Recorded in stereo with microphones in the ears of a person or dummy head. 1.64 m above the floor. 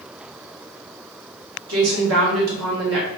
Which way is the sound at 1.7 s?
80° right.